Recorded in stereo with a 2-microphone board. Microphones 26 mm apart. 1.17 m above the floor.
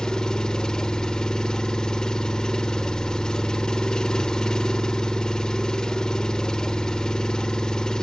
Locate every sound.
0.0 s an engine running: 25° left (ahead or behind), 1.3 m